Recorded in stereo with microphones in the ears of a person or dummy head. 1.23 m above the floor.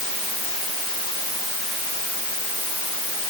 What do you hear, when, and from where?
Only background noise.